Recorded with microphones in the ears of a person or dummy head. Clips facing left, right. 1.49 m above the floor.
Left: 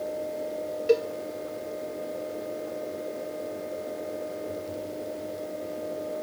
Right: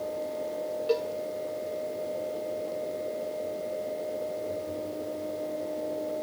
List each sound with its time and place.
0.9 s a cowbell: 30° left (ahead or behind), 1.1 m